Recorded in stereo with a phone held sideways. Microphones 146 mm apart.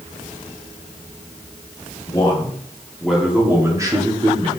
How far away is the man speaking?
About 2.5 m.